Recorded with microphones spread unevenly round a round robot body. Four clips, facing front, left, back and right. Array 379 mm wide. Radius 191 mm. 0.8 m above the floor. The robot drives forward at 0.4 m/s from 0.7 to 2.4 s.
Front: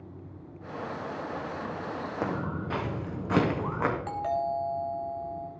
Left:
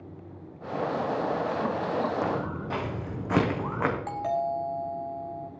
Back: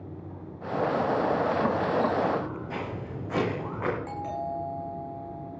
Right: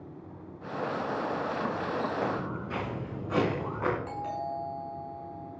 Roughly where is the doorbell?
Ahead left.